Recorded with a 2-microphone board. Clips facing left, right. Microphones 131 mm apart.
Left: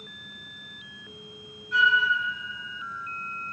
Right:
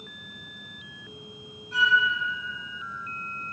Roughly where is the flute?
Right.